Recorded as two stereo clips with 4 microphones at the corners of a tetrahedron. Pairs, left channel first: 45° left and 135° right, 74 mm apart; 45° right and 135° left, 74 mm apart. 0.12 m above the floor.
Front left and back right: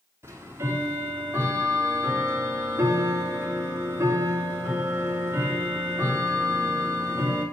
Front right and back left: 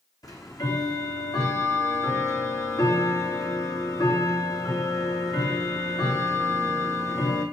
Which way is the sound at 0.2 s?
80° right.